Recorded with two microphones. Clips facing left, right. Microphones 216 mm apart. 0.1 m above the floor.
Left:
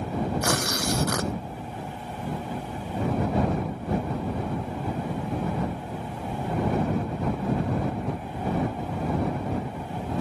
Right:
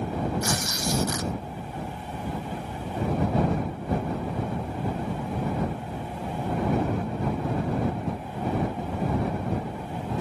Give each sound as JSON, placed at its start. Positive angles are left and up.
{"t": 0.4, "sound": "tearing paper", "side_deg": 70}